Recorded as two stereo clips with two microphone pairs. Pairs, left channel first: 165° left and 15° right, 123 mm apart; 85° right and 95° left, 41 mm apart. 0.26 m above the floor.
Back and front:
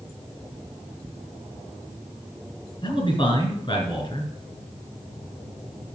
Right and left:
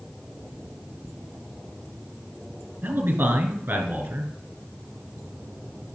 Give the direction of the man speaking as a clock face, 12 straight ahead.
8 o'clock.